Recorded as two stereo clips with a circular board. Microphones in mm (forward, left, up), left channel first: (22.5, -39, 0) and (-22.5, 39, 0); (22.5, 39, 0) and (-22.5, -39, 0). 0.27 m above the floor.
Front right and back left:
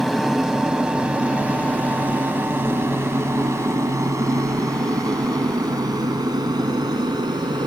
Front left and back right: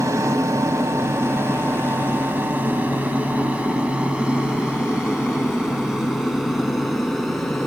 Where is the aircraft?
150° right; by 7.7 s 150° left.